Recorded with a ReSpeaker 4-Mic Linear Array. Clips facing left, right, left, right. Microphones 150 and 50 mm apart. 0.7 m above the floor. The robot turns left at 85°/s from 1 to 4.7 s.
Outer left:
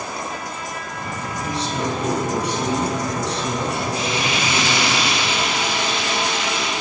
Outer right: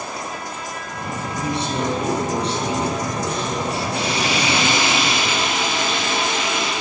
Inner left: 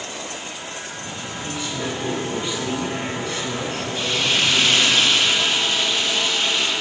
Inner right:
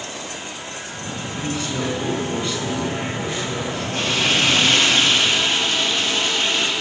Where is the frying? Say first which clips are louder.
Outer right 1 dB, inner right 2 dB; 65° right, 6.5 m; by 6.7 s 130° right, 6.5 m.